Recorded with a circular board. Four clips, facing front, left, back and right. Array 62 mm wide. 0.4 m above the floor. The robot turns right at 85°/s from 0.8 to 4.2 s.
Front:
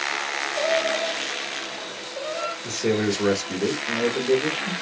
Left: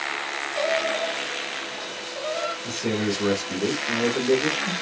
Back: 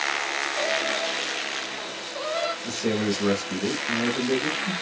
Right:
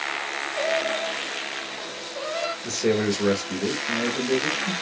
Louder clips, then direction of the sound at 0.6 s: Left 1 dB, front 5 dB; 75° left.